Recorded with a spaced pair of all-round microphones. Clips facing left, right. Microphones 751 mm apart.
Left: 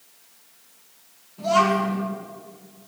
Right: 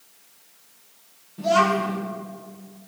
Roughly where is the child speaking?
Right.